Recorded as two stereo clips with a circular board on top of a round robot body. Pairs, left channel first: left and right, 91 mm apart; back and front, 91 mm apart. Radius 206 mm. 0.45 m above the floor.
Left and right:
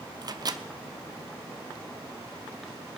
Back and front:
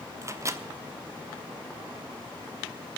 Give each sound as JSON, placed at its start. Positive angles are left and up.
{"t": 0.2, "sound": "a microwave", "azimuth_deg": -50, "distance_m": 1.0}